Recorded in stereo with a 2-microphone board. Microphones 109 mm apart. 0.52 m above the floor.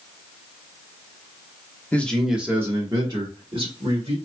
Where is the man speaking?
15° left (ahead or behind), 0.7 m; by 4.2 s 55° right (ahead or behind), 1.5 m.